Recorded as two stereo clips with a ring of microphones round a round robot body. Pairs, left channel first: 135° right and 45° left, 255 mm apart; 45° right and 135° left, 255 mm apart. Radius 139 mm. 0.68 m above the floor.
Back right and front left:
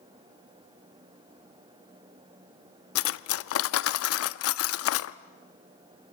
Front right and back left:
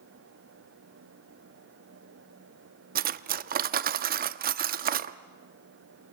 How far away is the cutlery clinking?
About 0.5 m.